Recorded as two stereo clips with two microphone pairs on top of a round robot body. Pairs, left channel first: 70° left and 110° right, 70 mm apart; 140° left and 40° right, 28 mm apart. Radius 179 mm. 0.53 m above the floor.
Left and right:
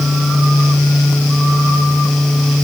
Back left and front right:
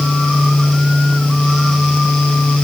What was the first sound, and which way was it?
Only background noise.